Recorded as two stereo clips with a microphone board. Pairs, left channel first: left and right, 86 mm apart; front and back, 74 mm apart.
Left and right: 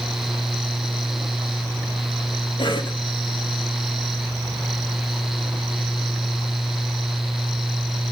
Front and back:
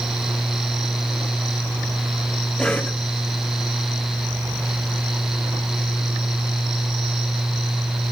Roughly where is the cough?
Left.